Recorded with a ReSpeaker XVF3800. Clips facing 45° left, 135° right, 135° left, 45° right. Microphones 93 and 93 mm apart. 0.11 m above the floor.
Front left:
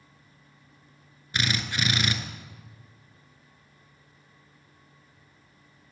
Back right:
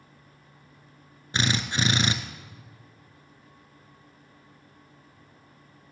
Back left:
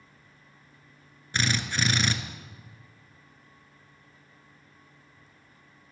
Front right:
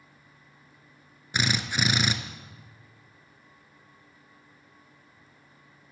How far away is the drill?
About 0.8 m.